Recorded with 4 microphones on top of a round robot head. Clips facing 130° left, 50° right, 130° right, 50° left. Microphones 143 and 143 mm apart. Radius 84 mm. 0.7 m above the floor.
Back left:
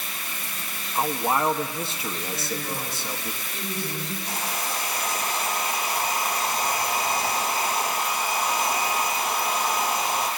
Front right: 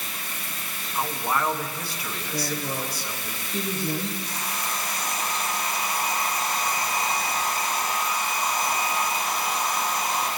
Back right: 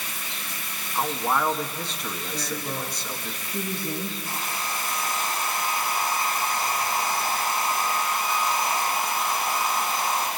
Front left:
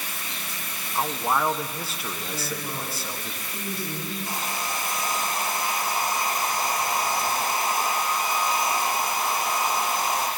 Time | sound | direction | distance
0.9 | a man speaking | 125° left | 0.8 m
2.3 | a woman speaking | 35° right | 3.5 m
4.2 | a hair dryer | 115° left | 4.5 m